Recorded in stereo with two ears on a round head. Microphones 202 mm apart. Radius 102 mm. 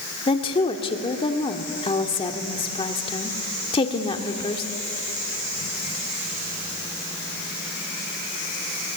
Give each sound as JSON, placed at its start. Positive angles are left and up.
{"t": 0.3, "sound": "a woman speaking", "side_deg": 25, "distance_m": 1.5}